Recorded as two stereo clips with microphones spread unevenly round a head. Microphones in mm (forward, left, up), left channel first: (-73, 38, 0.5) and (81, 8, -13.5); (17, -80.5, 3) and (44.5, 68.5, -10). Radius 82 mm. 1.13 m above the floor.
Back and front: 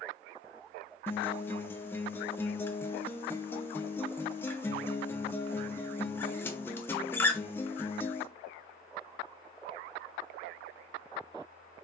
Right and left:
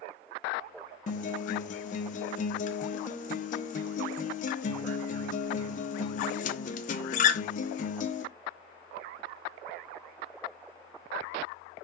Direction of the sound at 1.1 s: 110° right.